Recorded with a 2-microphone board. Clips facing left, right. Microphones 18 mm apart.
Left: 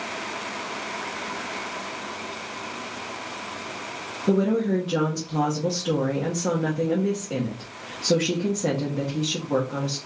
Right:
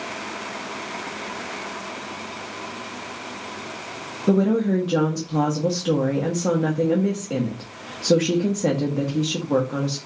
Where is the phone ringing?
I don't hear a phone ringing.